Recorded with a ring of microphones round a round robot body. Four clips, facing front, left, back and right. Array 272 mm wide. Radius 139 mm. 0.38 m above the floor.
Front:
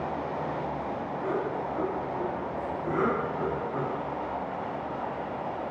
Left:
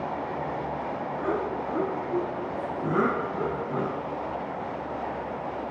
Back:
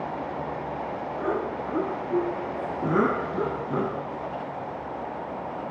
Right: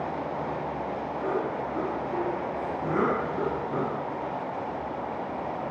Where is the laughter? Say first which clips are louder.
Even, back 2 dB; 155° left, 7 m; by 4.1 s 175° right, 7 m.